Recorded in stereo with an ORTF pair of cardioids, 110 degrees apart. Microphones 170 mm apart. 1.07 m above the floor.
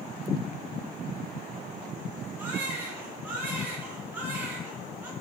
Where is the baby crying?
10° right, 4.5 m.